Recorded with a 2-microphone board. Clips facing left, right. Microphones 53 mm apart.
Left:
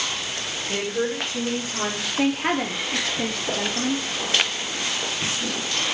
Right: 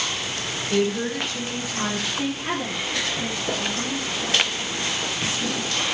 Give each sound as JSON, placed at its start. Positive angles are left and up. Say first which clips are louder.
{"t": 0.7, "sound": "a woman speaking", "louder": "right 3 dB", "side_deg": 35, "distance_m": 6.0}
{"t": 2.2, "sound": "a woman speaking", "louder": "left 9 dB", "side_deg": 60, "distance_m": 2.0}